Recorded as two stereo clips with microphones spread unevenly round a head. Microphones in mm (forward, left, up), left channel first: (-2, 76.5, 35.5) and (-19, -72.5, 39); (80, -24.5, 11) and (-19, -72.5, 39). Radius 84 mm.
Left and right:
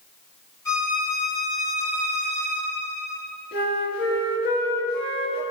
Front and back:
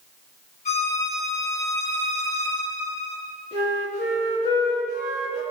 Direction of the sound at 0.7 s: 15° left.